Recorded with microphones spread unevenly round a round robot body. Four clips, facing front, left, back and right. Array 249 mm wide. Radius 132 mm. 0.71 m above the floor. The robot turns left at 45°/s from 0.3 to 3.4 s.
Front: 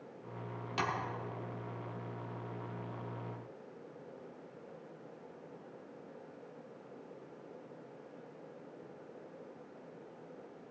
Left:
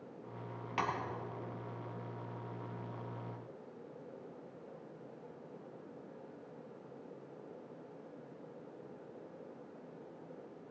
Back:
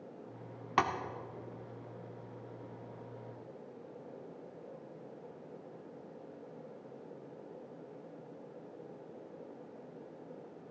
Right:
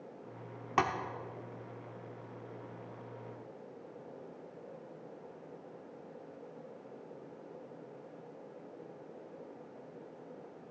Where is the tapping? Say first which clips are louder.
Right 6 dB, back 6 dB; 125° right, 1.1 m; by 0.9 s 130° right, 1.1 m.